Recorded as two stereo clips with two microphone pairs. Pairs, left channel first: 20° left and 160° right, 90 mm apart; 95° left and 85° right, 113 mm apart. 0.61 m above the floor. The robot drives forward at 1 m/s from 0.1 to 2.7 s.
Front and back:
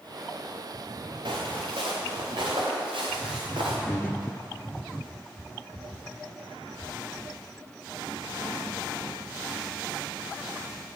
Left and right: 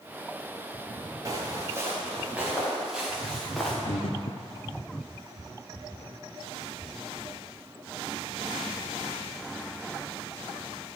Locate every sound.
1.2 s footsteps: 145° right, 3.5 m; by 3.8 s straight behind, 3.5 m
3.9 s breathing: 80° left, 0.6 m